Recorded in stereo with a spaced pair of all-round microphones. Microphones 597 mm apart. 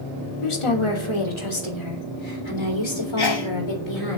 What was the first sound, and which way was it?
A woman speaking, 60° left (ahead or behind).